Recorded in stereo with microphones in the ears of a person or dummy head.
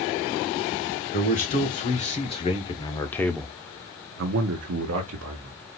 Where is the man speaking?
40° left (ahead or behind), 1.9 m; by 5.6 s 75° right (ahead or behind), 1.3 m.